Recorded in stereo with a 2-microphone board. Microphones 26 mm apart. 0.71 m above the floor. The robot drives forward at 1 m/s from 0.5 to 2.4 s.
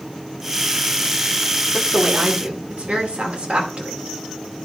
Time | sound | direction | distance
1.7 | a woman speaking | 65° right (ahead or behind) | 1.8 m